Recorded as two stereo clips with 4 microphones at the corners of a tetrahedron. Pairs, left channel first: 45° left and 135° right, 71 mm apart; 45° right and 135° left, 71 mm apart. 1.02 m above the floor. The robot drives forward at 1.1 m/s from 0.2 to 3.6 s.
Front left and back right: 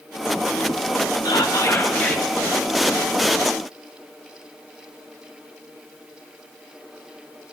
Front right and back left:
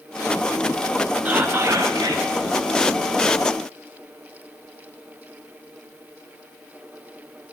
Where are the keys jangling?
No keys jangling in this recording.